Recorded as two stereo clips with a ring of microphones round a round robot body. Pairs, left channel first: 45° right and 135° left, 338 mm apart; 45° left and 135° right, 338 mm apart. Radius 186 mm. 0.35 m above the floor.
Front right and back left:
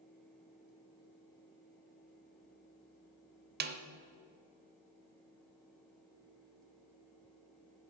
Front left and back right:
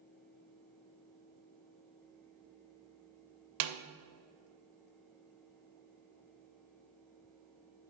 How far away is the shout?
I don't hear a shout.